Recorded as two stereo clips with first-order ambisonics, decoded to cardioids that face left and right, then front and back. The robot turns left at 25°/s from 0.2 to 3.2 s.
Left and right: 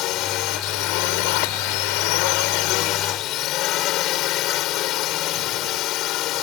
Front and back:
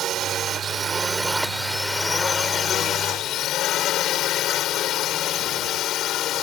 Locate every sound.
0.0 s a drone: 125° left; by 6.4 s 50° left